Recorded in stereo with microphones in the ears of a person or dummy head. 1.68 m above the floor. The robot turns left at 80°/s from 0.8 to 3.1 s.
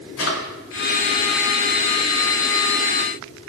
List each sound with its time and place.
0.2 s a drawer: 70° left (ahead or behind), 4 m